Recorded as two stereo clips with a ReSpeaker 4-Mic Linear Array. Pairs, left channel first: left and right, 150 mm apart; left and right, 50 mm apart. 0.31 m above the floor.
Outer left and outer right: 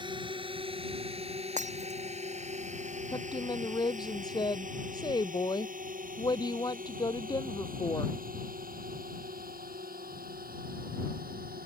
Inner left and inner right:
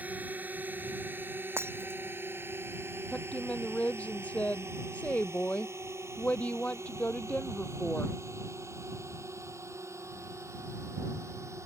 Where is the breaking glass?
55° right (ahead or behind).